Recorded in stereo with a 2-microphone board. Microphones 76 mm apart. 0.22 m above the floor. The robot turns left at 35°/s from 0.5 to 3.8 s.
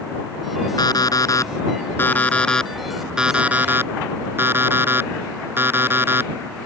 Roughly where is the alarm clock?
Left.